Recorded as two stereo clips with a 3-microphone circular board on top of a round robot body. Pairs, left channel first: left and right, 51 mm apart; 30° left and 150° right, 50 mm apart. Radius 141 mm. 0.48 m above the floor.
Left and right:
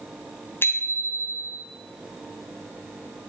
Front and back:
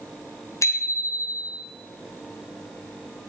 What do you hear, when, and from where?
0.6 s a bicycle bell: 45° left, 3.5 m